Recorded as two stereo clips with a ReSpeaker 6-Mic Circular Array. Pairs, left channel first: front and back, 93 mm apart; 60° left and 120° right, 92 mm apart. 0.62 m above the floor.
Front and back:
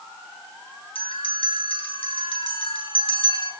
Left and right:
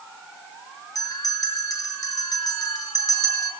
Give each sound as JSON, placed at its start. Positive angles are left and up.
{"t": 0.9, "sound": "a bell", "azimuth_deg": 10, "distance_m": 4.5}